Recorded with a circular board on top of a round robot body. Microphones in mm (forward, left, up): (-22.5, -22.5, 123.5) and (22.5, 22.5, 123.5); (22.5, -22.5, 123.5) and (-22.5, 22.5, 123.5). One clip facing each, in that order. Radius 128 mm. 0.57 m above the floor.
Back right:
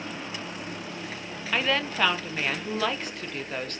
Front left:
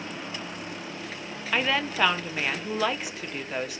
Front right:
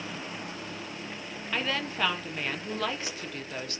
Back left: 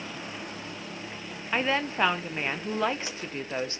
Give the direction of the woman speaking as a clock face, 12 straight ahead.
8 o'clock.